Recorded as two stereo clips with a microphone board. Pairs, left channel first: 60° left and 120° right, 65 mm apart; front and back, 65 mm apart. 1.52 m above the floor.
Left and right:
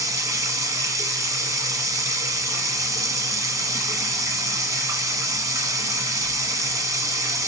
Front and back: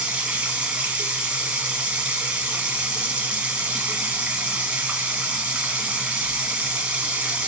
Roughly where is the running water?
Right.